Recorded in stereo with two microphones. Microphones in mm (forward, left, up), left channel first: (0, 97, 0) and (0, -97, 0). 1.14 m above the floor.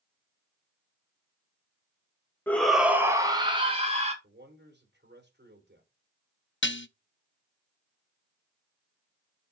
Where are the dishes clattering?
75° left (ahead or behind), 0.6 m.